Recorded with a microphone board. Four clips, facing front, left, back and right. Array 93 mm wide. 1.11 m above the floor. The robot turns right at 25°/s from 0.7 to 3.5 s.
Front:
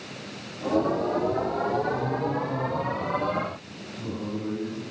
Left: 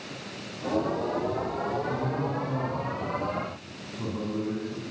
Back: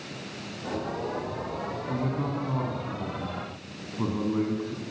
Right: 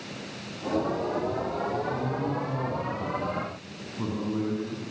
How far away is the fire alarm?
No fire alarm in this recording.